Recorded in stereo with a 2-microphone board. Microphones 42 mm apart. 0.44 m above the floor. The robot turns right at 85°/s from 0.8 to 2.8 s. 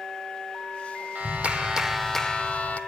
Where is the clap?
75° right, 1.0 m; by 2.8 s 65° left, 1.0 m.